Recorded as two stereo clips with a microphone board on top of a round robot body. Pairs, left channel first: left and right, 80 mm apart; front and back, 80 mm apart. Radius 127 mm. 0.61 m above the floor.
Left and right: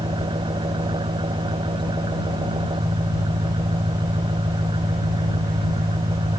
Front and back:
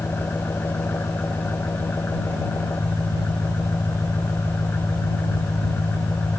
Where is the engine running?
70° right.